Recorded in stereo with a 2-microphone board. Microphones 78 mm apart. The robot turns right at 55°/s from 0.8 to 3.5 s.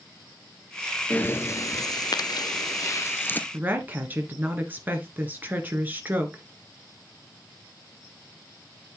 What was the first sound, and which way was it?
Breathing, 25° left.